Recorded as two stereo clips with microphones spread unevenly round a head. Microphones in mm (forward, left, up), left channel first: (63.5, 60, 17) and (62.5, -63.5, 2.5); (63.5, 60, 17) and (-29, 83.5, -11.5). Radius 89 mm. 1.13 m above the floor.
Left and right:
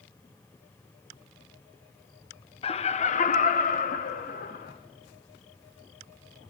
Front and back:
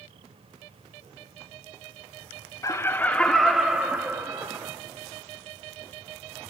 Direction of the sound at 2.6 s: 50° left.